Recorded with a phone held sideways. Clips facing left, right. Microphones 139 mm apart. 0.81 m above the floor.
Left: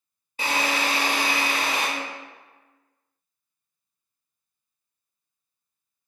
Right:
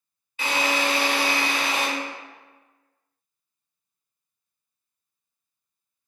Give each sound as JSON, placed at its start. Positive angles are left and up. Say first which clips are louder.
{"t": 0.4, "sound": "a drill", "louder": "right 1 dB", "side_deg": 40, "distance_m": 1.0}